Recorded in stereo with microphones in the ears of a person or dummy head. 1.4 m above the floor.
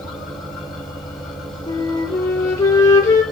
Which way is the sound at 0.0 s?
5° left (ahead or behind).